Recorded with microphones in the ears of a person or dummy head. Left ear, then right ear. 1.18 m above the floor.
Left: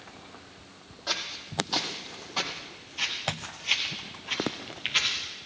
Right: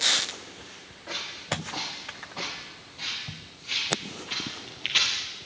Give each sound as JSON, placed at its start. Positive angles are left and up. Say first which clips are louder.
{"t": 1.1, "sound": "footsteps", "louder": "even", "side_deg": 65, "distance_m": 3.0}